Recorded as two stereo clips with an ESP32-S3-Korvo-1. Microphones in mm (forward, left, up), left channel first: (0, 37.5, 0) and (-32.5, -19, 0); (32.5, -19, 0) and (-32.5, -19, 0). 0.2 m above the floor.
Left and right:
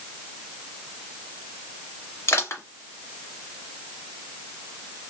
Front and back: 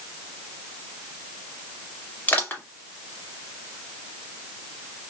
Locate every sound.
2.3 s crushing: 50° left, 1.4 m